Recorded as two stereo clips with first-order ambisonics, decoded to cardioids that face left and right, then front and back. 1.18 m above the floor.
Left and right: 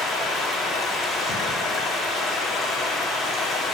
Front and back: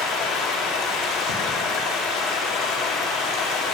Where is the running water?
10° left, 2.5 m.